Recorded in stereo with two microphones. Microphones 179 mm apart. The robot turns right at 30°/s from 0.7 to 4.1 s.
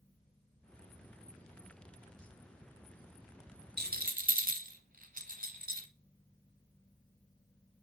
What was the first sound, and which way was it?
A rattle, 60° right (ahead or behind).